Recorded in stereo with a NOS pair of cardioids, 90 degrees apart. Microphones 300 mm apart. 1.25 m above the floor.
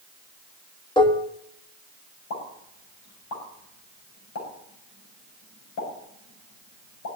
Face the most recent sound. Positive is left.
turn(degrees=65)